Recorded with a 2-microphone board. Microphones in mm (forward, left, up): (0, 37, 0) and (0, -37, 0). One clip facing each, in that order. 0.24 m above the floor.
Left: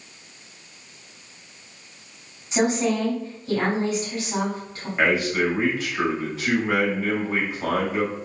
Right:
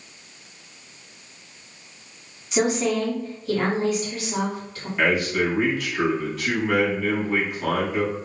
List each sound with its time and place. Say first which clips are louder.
2.5 s a woman speaking: even; 25° left (ahead or behind), 1.9 m
5.0 s a man speaking: even; 25° left (ahead or behind), 1.6 m